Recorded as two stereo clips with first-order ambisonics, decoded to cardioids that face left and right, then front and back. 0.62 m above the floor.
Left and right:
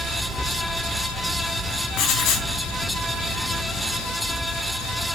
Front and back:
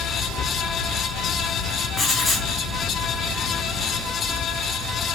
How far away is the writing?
About 0.7 m.